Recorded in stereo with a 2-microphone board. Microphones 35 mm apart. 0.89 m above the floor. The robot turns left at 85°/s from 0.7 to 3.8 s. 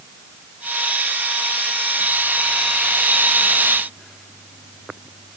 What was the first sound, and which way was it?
Only background noise.